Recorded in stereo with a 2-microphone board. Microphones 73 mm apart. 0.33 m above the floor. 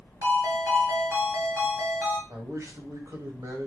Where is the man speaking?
45° right (ahead or behind), 1.5 m.